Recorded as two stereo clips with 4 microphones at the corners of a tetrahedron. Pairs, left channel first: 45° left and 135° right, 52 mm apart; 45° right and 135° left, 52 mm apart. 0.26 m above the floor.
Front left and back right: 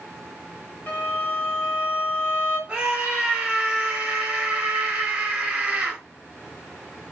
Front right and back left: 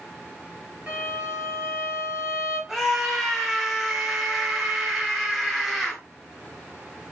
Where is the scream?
150° right, 0.9 m.